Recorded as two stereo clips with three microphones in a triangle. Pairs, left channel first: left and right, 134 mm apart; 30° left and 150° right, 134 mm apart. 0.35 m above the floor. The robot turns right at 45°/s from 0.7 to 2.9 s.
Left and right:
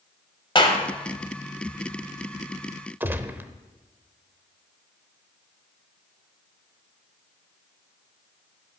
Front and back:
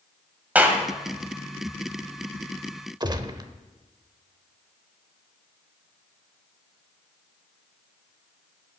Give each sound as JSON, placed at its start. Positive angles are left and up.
{"t": 0.6, "sound": "a clap", "azimuth_deg": 135, "distance_m": 1.4}
{"t": 3.0, "sound": "a gunshot", "azimuth_deg": -150, "distance_m": 0.7}